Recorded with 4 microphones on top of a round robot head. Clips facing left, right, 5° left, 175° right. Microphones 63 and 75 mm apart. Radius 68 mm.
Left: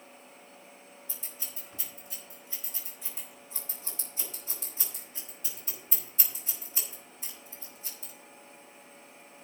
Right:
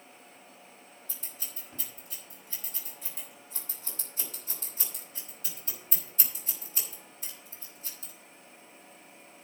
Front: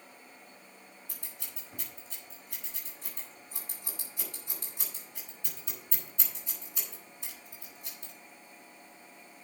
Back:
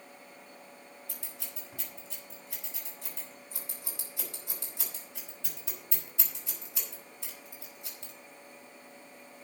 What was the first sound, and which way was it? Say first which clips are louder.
Scissors: even, back 3 dB; 145° right.